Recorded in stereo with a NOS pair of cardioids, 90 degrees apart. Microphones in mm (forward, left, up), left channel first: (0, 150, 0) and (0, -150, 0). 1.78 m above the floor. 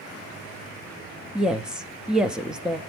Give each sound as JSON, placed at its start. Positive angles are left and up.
{"t": 1.4, "sound": "a woman speaking", "azimuth_deg": -5, "distance_m": 0.6}